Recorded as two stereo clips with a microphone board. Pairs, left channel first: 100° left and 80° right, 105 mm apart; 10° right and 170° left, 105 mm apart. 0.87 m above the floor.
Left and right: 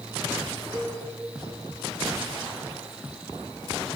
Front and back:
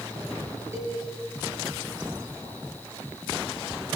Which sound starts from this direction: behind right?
A cowbell, at 0.7 s.